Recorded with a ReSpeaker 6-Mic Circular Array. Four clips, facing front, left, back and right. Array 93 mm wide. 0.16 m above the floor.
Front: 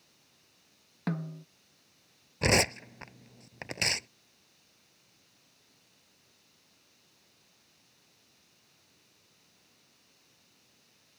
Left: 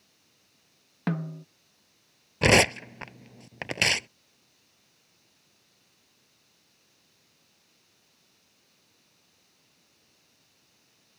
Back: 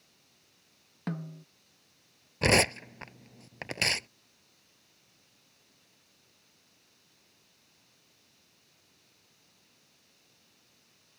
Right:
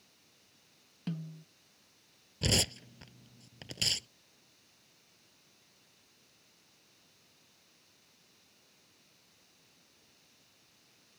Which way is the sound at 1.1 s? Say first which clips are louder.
Left 10 dB, front 3 dB; 85° left.